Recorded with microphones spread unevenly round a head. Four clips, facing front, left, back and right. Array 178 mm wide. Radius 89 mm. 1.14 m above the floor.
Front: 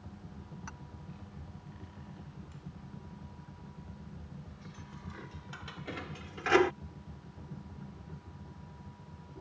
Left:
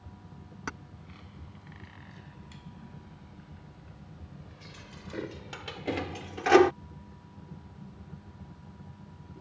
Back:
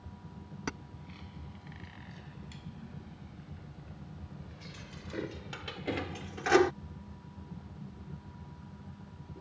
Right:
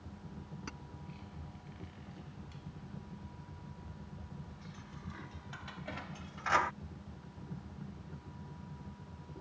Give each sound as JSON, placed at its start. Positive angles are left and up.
{"t": 0.7, "sound": "keys jangling", "azimuth_deg": 160}